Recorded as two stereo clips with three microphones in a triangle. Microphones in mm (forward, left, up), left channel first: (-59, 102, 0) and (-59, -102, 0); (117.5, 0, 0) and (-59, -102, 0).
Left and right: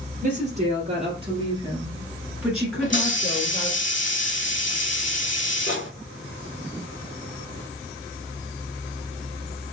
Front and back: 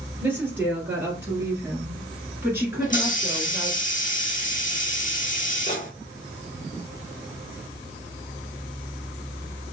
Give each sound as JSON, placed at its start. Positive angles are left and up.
{"t": 0.2, "sound": "a woman speaking", "azimuth_deg": -70, "distance_m": 2.0}
{"t": 2.8, "sound": "a hiss", "azimuth_deg": 75, "distance_m": 1.0}